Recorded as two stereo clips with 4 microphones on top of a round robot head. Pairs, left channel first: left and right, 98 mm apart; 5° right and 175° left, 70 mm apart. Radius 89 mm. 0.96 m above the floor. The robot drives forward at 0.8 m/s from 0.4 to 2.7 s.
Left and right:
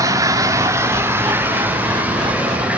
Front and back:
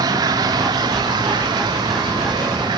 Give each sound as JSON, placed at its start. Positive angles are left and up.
{"t": 0.0, "sound": "running water", "azimuth_deg": -145, "distance_m": 1.3}